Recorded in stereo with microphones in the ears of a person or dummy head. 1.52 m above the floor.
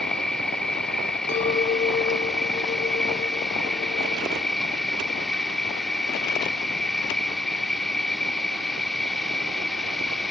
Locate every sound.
0.0 s an insect: 5° left (ahead or behind)
1.3 s a clink: 40° left (ahead or behind)